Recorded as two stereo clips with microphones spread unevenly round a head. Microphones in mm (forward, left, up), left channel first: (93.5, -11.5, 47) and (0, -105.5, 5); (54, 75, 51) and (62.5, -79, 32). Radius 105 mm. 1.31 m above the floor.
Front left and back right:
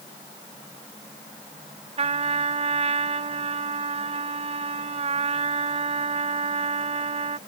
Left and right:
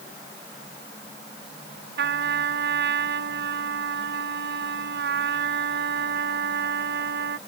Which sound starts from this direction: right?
A trumpet, at 2.0 s.